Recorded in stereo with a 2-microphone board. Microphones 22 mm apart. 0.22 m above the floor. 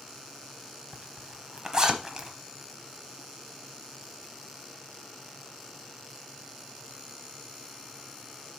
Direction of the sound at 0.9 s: 30° right (ahead or behind).